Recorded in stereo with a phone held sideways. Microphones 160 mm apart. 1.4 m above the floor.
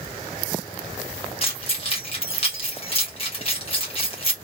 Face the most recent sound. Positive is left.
turn(degrees=35)  # may be behind; listen again after turning